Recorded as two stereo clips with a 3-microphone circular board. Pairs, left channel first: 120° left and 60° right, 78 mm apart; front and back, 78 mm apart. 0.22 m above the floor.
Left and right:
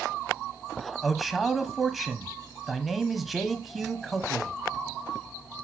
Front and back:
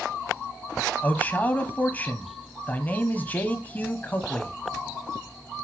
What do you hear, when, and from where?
1.0 s a man speaking: 25° left, 1.0 m